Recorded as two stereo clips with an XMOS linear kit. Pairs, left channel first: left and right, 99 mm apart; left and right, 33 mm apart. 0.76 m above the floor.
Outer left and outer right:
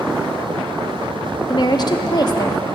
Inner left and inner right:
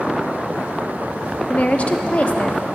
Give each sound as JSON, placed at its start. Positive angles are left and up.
{"t": 1.5, "sound": "a woman speaking", "side_deg": 45, "distance_m": 0.8}